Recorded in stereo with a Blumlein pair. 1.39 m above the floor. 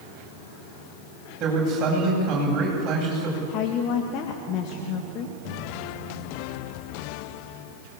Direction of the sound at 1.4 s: 30° right.